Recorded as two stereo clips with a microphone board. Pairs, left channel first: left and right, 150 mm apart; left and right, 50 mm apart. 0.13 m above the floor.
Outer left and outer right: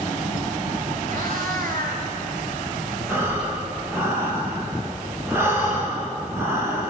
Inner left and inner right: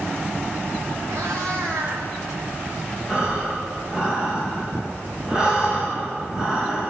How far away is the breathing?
About 5.5 m.